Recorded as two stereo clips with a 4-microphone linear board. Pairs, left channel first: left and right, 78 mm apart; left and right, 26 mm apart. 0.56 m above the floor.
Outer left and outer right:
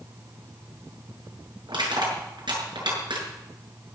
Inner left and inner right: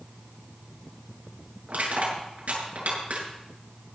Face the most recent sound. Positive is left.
turn(degrees=-80)